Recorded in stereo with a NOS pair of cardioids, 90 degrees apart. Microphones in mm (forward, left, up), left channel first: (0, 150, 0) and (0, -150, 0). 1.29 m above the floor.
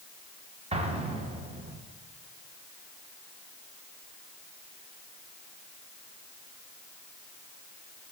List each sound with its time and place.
0.7 s an explosion: 20° right, 1.0 m